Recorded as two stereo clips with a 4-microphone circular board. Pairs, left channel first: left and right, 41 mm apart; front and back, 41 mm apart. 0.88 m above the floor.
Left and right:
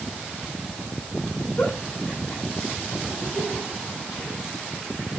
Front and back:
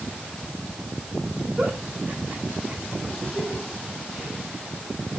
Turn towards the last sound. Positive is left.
turn(degrees=130)